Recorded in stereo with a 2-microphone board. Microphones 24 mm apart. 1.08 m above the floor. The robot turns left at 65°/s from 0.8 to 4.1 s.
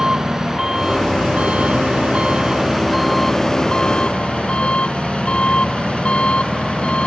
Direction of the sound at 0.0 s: 30° right.